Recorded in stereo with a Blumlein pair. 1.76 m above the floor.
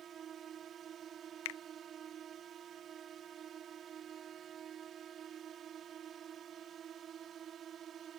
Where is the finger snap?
50° left.